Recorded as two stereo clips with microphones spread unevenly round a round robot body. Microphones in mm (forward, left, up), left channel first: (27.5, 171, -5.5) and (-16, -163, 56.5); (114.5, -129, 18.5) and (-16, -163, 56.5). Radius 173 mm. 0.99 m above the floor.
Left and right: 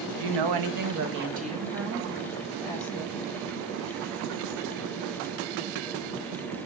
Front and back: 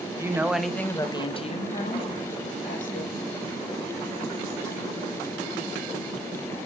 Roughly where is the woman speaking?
Right.